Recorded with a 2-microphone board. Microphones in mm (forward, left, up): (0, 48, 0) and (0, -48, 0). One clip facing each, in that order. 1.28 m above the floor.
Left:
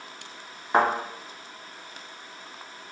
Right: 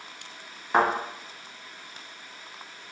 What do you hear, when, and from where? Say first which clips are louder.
0.7 s a thud: left 1 dB; 5° left (ahead or behind), 1.6 m